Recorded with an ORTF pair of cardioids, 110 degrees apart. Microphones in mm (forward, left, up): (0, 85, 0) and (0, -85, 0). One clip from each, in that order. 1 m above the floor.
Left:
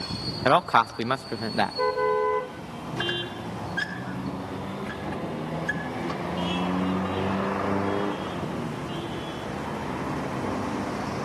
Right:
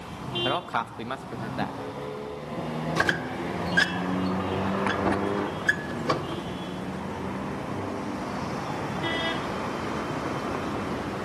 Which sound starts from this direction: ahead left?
A man speaking, at 0.5 s.